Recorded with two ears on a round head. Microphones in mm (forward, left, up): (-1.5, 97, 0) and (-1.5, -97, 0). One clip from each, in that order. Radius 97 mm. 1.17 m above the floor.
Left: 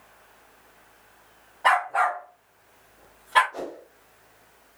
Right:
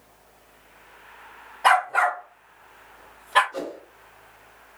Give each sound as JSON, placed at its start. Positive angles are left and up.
{"t": 1.6, "sound": "a dog barking", "side_deg": -60, "distance_m": 2.0}
{"t": 3.5, "sound": "a whoosh", "side_deg": -65, "distance_m": 2.0}